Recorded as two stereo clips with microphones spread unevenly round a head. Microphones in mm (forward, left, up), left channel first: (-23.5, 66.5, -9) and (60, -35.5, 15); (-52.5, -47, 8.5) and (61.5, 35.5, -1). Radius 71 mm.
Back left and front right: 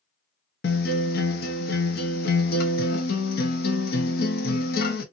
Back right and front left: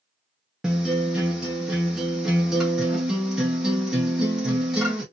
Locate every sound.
0.6 s a guitar: 125° left, 0.8 m